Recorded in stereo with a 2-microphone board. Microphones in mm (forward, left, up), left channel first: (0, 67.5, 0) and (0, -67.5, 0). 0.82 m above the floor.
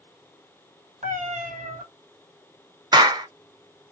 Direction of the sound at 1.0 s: 70° right (ahead or behind).